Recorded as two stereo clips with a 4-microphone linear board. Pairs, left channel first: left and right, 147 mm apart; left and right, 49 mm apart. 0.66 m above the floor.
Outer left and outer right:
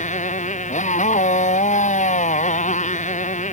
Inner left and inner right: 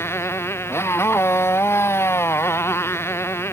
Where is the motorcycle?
55° left (ahead or behind).